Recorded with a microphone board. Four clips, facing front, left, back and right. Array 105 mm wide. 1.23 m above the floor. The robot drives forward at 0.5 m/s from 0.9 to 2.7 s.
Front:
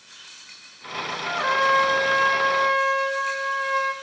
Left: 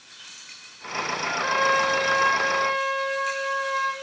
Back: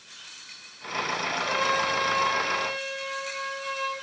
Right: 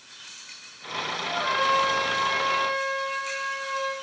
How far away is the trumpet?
About 7 m.